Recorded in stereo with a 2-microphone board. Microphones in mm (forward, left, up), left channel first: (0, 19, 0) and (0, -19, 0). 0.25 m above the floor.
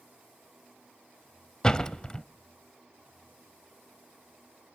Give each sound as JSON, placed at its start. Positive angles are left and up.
{"t": 1.6, "sound": "a door slam", "side_deg": 20, "distance_m": 0.6}